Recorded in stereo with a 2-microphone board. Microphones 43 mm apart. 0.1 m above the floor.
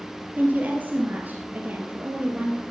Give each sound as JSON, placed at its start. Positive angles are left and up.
{"t": 0.4, "sound": "a woman speaking", "side_deg": -40, "distance_m": 2.0}